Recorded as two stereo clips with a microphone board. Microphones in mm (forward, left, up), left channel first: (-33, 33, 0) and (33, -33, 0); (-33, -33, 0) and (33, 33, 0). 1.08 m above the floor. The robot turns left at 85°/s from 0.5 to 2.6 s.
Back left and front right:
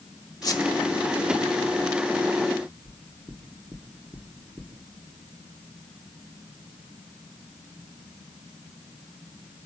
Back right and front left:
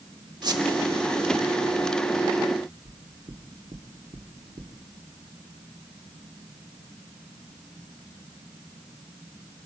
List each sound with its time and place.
0.4 s a squeak: 85° left, 1.2 m; by 0.6 s 75° left, 1.2 m
2.9 s knocking: 30° left, 2.0 m